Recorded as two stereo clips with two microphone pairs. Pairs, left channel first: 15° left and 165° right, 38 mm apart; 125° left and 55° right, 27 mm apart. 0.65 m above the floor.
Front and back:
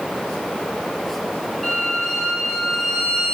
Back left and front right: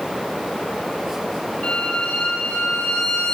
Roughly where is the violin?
Left.